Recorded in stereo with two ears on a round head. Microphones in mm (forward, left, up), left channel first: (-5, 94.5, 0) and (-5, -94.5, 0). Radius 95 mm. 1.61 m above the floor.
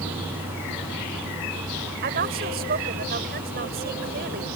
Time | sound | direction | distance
2.0 | a woman speaking | 50° right (ahead or behind) | ?